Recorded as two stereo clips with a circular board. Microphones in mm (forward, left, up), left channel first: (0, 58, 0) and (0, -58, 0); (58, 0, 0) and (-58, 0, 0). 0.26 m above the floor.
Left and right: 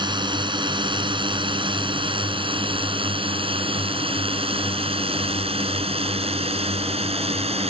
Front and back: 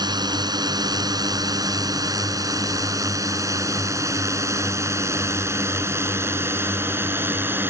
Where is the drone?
130° right; by 7.7 s 110° right.